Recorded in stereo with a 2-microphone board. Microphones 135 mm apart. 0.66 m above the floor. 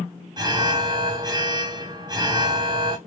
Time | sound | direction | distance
0.4 | an alarm | 30° right (ahead or behind) | 0.8 m